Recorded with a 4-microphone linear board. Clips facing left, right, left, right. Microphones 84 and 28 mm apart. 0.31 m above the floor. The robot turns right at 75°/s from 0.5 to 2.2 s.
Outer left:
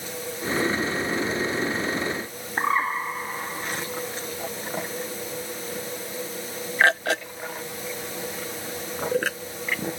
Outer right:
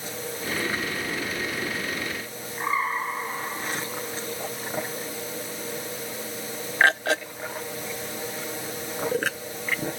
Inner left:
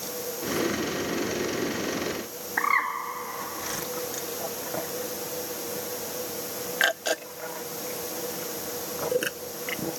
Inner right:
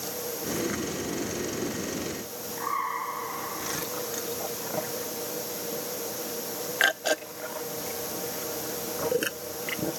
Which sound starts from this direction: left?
A bird, at 2.6 s.